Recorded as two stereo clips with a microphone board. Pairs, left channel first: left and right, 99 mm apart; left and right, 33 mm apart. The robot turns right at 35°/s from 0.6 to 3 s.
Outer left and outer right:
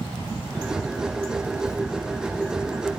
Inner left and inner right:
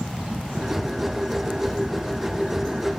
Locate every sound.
1.6 s a zipper: 20° left (ahead or behind), 1.6 m; by 1.8 s 25° left (ahead or behind), 1.6 m